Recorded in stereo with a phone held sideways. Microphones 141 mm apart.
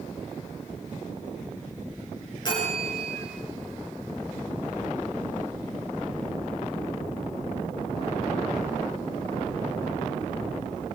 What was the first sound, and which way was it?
A bell, 35° left (ahead or behind).